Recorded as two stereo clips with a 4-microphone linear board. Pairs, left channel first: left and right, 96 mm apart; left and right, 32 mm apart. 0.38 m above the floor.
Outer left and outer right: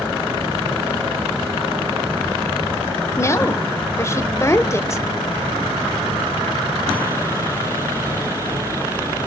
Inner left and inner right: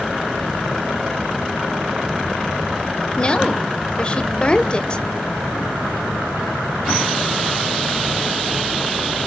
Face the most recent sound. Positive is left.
turn(degrees=30)  # may be behind; listen again after turning